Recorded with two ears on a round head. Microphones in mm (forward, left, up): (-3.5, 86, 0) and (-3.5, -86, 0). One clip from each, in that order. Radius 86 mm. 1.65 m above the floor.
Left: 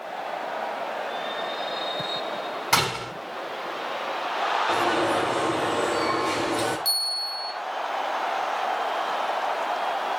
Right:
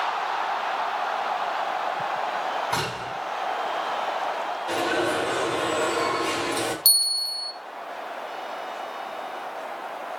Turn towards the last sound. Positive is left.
turn(degrees=-45)  # may be behind; listen again after turning